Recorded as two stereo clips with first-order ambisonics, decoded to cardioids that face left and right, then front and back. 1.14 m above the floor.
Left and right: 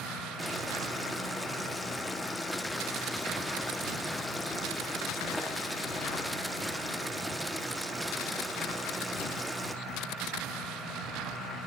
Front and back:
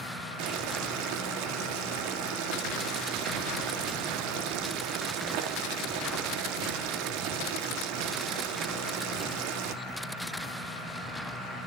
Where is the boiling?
Straight behind, 2.5 m.